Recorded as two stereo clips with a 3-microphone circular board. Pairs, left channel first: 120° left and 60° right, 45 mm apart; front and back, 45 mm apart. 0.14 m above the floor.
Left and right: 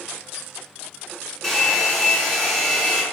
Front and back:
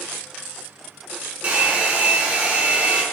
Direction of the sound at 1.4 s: 160° right.